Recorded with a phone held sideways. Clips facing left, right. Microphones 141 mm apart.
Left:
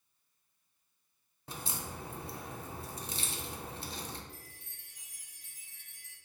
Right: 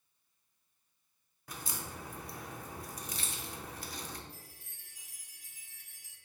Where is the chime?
5° right (ahead or behind), 1.5 m.